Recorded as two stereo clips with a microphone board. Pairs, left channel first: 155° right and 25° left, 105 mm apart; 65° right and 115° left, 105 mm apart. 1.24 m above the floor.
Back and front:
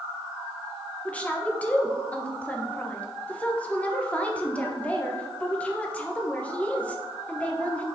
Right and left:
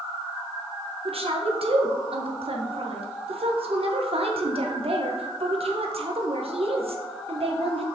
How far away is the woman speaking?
About 1.2 m.